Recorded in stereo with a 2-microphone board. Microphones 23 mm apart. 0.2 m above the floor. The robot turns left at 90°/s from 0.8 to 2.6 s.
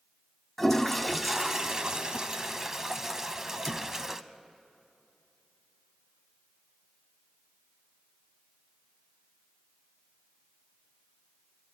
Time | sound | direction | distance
0.6 | a toilet flushing | 20° left | 0.6 m